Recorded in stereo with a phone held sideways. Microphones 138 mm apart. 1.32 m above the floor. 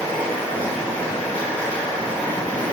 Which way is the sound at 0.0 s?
10° left (ahead or behind).